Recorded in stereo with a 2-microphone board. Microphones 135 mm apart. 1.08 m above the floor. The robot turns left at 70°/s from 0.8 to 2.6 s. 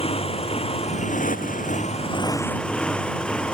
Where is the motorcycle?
45° left (ahead or behind); by 3.6 s 5° left (ahead or behind).